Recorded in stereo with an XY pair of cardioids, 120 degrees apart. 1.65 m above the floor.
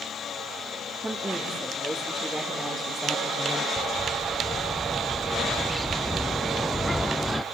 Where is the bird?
5° left, 0.6 m.